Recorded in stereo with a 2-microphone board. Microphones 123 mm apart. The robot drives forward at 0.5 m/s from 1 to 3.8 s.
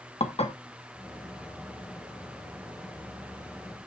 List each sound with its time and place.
0.2 s dishes clattering: 60° left (ahead or behind), 1.4 m